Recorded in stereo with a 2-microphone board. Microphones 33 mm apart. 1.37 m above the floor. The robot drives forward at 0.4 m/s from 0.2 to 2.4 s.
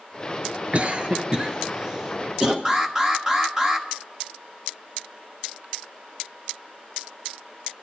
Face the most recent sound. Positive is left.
turn(degrees=-15)  # may be behind; listen again after turning